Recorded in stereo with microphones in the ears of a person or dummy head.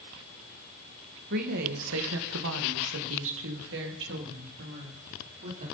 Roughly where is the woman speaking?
Right.